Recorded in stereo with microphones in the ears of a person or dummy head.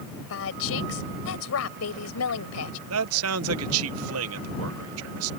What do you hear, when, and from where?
0.3 s a woman speaking: 75° left (ahead or behind); by 2.8 s 85° left
2.9 s a man speaking: 80° right